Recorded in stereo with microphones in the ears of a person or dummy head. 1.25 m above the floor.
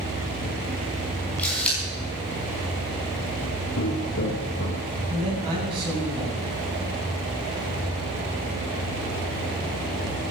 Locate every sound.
1.4 s a camera shutter: 5° left (ahead or behind), 5 m
3.8 s footsteps: 70° left (ahead or behind), 4 m; by 4.8 s 60° left (ahead or behind), 3 m
5.1 s a man speaking: 25° right (ahead or behind), 9 m